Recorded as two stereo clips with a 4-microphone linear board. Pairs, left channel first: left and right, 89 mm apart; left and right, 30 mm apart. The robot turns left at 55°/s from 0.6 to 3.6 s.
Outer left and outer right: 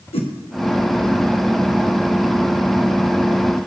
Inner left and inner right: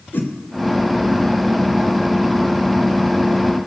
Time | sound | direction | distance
0.1 | a whoosh | 80° left | 1.0 m